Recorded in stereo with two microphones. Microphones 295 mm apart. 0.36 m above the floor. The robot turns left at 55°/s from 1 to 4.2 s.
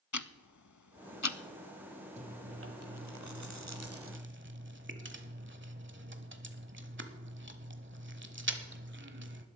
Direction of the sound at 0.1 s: 75° left (ahead or behind).